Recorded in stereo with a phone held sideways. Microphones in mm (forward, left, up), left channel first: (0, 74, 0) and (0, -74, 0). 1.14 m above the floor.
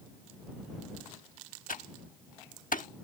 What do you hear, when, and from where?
1.7 s typing on a keyboard: 70° left (ahead or behind)